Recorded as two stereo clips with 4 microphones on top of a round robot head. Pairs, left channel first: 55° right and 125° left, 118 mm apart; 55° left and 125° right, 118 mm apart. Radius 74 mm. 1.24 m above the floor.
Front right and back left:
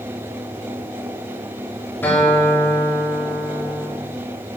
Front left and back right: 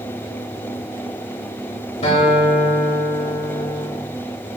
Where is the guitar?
20° left, 4 m.